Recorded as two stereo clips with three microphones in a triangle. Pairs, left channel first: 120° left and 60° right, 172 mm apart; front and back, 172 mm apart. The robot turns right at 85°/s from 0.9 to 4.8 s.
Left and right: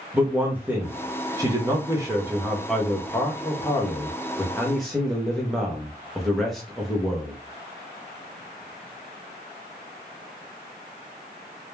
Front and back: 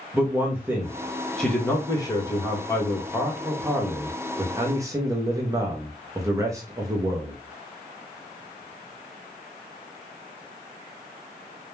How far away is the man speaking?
About 0.6 m.